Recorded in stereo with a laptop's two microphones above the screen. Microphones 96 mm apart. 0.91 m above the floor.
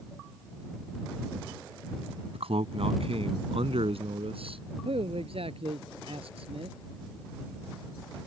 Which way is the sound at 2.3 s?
80° right.